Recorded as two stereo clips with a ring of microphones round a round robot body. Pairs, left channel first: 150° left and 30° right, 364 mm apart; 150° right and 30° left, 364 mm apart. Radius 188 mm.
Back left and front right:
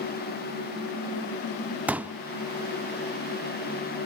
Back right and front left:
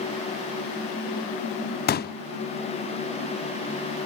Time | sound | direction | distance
1.9 | a pop | 115° right | 0.5 m